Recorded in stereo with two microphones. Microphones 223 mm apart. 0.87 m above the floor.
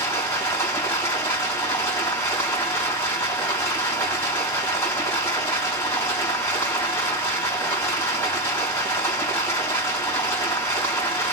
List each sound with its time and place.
0.0 s running water: 10° left (ahead or behind), 3.5 m